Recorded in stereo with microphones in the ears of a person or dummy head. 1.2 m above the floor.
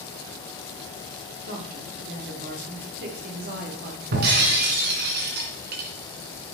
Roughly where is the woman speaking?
Right.